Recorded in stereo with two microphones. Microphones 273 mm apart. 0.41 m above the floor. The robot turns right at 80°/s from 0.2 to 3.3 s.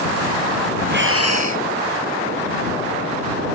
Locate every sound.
0.9 s breathing: 145° right; by 1.7 s 85° right